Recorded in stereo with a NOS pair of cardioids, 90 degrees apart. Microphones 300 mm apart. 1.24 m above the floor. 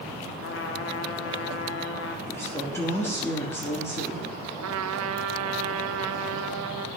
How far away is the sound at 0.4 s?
About 1.6 m.